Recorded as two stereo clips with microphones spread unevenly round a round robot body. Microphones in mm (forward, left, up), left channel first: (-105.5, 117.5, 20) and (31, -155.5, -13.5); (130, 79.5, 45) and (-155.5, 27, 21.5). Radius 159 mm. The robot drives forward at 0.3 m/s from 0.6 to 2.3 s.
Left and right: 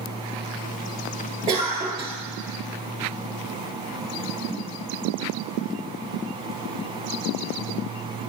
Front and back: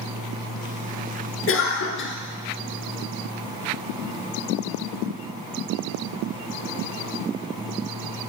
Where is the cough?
Straight ahead, 1.7 m; by 2.1 s 5° left, 1.6 m.